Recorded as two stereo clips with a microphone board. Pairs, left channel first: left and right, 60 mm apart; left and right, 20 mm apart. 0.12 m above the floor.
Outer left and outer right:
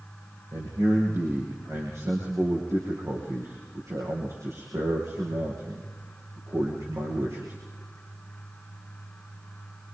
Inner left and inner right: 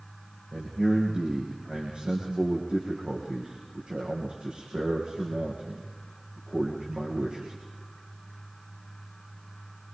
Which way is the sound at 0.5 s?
65° right (ahead or behind).